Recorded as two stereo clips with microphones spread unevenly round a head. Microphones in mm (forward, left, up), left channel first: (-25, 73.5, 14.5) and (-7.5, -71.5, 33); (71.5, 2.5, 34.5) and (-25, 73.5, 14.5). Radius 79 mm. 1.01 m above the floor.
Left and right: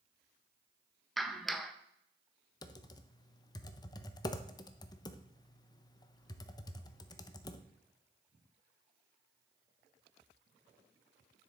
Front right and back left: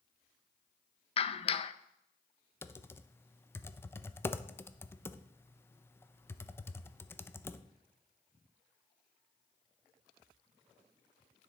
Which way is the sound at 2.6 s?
40° left.